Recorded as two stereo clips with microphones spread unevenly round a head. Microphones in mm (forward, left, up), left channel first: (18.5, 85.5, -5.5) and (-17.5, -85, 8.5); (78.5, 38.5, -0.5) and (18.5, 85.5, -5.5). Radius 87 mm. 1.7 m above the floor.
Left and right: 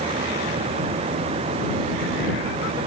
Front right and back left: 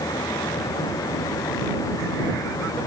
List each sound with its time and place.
Only background noise.